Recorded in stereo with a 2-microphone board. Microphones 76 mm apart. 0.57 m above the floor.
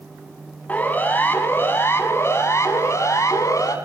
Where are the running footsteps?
No running footsteps in this recording.